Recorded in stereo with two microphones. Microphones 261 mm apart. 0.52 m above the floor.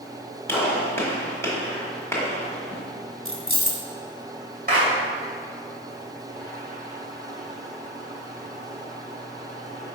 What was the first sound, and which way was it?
A gunshot, 10° left (ahead or behind).